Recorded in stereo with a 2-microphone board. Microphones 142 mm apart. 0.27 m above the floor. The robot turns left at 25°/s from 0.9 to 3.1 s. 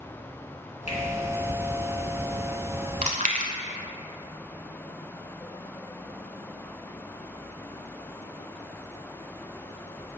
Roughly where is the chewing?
Right.